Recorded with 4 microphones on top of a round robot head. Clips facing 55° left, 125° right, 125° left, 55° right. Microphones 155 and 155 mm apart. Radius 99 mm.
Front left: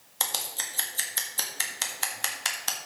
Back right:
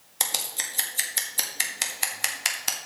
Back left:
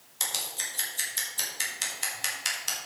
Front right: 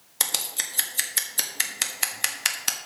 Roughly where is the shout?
No shout in this recording.